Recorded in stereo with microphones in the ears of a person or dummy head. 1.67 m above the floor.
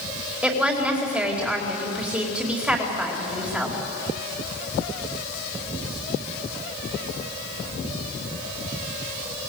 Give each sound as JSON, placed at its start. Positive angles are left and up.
{"t": 0.4, "sound": "a woman speaking", "side_deg": -10, "distance_m": 4.5}